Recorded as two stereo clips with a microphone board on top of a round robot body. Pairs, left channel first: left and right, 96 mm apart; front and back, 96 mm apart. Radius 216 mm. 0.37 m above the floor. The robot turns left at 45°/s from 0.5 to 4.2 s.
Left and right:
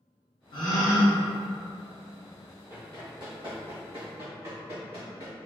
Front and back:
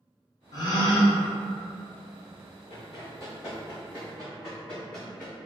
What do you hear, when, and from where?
0.5 s a gasp: 55° left, 0.8 m; by 1.2 s 25° left, 0.8 m
2.7 s running footsteps: 30° right, 1.1 m; by 5.4 s 90° right, 3.5 m